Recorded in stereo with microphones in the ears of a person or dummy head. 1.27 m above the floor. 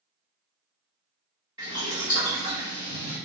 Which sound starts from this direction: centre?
Boiling, at 1.6 s.